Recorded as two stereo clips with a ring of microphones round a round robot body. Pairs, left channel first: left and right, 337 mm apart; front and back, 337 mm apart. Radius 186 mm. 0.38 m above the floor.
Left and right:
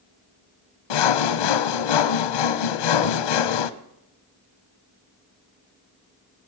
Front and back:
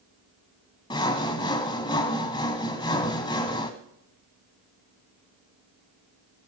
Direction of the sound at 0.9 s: 80° left.